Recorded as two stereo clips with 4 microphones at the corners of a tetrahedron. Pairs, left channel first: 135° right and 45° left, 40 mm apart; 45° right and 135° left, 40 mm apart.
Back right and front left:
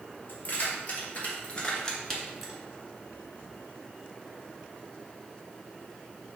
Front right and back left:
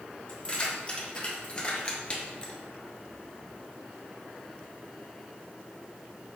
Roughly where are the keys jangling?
Right.